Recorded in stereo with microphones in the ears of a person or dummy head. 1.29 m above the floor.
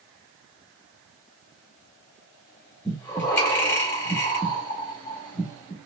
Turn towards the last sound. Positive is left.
turn(degrees=15)  # may be behind; listen again after turning